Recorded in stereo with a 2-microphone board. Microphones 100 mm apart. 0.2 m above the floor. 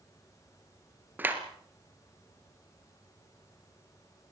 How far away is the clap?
About 3 m.